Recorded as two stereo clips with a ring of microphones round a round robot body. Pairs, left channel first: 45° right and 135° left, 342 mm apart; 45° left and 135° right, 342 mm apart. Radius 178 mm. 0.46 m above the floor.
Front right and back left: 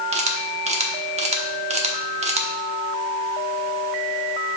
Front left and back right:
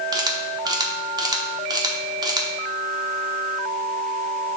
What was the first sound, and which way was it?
A camera shutter, 165° left.